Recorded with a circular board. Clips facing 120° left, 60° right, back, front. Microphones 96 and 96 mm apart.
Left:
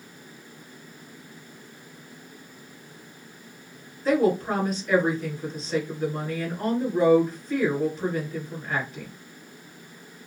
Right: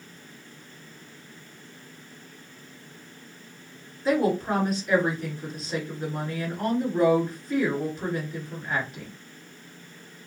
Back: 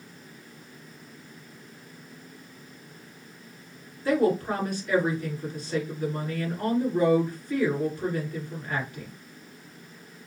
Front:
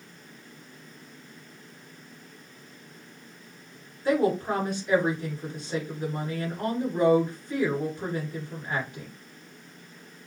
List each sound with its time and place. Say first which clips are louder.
4.0 s a woman speaking: left 2 dB, back 1 dB; 20° left, 1.6 m